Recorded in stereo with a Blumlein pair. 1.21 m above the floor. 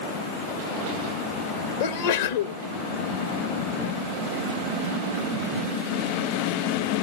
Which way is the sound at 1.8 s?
55° left.